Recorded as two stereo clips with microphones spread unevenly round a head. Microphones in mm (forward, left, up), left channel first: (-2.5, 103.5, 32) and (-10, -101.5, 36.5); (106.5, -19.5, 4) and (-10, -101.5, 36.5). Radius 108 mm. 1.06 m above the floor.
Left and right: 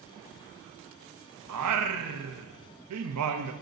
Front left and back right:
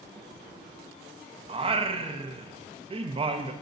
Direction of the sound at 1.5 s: 100° right.